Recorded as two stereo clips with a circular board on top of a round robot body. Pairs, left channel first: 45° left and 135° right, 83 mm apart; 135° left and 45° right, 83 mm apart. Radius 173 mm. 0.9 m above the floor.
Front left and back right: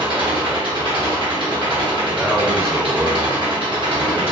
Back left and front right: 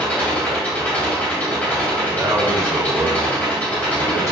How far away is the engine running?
About 1.2 m.